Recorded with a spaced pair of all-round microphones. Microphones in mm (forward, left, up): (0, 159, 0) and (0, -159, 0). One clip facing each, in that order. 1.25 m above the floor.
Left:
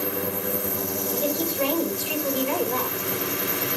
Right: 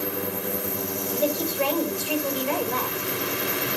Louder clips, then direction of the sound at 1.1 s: Right 1 dB; 40° left (ahead or behind).